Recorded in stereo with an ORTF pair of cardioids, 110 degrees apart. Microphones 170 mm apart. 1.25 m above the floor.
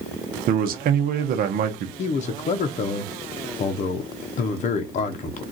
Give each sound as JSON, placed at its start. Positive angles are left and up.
{"t": 0.5, "sound": "a man speaking", "azimuth_deg": -55, "distance_m": 0.8}
{"t": 2.0, "sound": "a man speaking", "azimuth_deg": 45, "distance_m": 0.7}